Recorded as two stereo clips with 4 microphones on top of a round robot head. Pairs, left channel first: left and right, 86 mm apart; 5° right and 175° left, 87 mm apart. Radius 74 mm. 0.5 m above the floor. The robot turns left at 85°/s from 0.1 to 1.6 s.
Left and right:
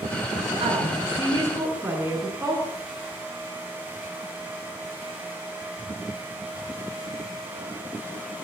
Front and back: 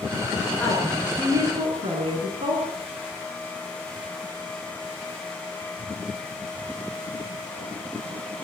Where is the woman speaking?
80° right, 7 m; by 2.6 s 165° right, 7 m.